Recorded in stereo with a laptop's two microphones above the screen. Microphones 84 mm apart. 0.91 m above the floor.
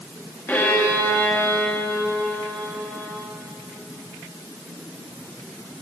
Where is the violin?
20° left (ahead or behind), 1.9 m.